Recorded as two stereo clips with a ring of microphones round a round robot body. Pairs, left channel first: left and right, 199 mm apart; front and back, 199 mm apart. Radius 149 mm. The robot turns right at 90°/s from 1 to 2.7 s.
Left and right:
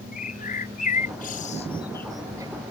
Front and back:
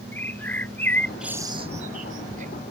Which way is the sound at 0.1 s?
75° left.